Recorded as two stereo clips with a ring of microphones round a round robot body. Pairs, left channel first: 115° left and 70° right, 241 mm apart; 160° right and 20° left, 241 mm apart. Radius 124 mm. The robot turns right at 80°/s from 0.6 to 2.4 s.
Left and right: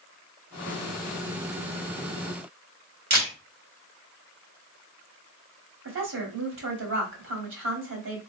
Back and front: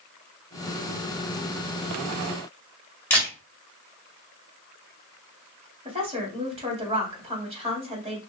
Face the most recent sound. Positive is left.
turn(degrees=-40)